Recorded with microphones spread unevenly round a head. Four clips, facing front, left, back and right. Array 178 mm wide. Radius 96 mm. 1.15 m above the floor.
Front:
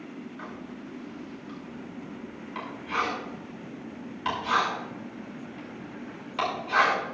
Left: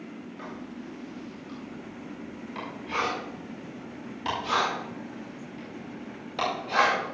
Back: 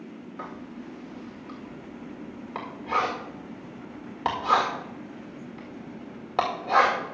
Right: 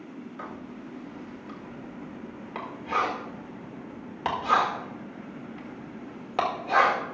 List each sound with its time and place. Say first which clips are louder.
0.4 s writing: left 1 dB, back 1 dB; 160° right, 2.0 m